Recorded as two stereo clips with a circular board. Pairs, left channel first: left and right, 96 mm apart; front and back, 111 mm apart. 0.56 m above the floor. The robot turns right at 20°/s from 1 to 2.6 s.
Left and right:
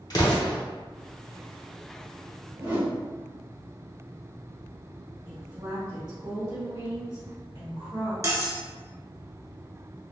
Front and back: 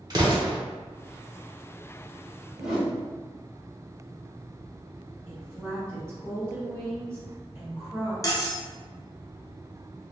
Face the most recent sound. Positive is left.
turn(degrees=-45)